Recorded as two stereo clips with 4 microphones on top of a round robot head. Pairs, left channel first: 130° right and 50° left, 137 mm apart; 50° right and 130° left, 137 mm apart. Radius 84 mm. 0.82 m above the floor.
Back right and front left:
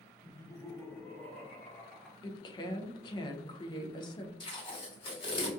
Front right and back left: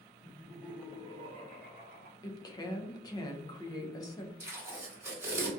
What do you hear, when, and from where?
0.2 s laughter: 90° right, 0.7 m; by 2.1 s 150° left, 1.3 m
2.2 s a woman speaking: 95° right, 0.5 m
4.4 s tape being pulled: 165° right, 1.4 m